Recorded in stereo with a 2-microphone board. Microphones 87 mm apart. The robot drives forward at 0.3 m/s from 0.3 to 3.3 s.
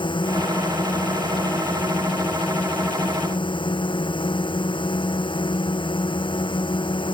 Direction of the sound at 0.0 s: 65° left (ahead or behind).